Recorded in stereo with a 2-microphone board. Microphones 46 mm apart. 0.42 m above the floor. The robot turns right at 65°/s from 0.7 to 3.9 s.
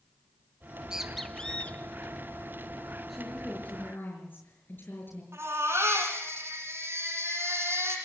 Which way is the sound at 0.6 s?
25° right (ahead or behind).